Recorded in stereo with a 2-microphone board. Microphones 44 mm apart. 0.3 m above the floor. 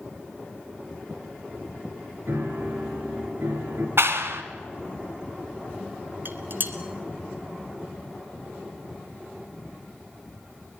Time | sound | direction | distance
2.3 | a piano | 70° right (ahead or behind) | 5 m
4.0 | a clap | 70° right (ahead or behind) | 2 m
6.2 | dishes clattering | 45° right (ahead or behind) | 2.5 m